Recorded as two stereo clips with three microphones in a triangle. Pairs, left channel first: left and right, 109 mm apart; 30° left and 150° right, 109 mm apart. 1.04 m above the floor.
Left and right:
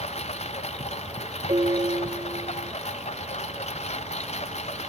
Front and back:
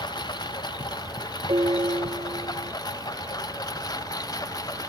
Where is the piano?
120° right.